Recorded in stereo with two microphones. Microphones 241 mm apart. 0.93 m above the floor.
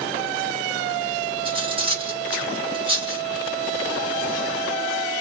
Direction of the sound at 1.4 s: 20° right (ahead or behind).